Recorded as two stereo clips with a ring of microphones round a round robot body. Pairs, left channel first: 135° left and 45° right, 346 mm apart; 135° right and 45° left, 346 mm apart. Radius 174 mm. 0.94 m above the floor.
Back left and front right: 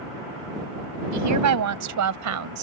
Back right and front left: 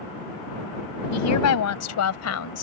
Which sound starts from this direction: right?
A woman speaking, at 1.1 s.